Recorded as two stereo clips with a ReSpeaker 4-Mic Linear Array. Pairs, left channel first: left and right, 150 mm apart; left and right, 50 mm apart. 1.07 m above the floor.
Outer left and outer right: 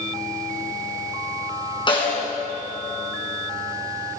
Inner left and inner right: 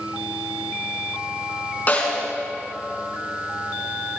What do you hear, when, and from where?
1.9 s a snare drum: 35° left (ahead or behind), 5.5 m